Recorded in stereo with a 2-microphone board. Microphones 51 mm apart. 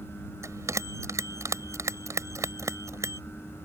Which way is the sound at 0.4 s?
80° right.